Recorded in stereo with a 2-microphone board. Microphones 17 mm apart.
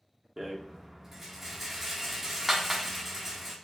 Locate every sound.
0.4 s a rattle: 15° right (ahead or behind), 0.8 m